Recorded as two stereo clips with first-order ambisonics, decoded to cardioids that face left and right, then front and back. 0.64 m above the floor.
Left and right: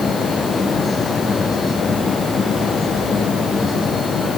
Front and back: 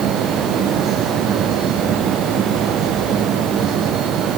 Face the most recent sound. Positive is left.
No sound to turn to.